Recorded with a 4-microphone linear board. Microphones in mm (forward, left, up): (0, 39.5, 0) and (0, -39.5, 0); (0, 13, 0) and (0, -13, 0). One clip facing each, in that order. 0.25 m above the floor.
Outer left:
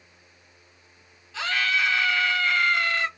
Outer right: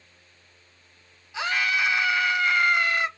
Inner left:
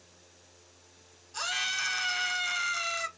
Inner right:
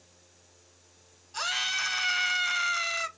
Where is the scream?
15° right (ahead or behind), 1.0 m.